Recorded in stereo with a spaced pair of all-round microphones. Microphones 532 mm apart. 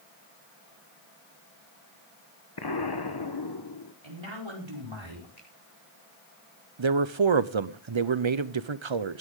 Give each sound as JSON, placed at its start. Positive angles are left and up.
{"t": 2.6, "sound": "an explosion", "side_deg": 45, "distance_m": 1.0}
{"t": 4.0, "sound": "a man speaking", "side_deg": -55, "distance_m": 5.0}
{"t": 5.4, "sound": "a finger snap", "side_deg": 90, "distance_m": 5.5}
{"t": 6.8, "sound": "a man speaking", "side_deg": -60, "distance_m": 0.8}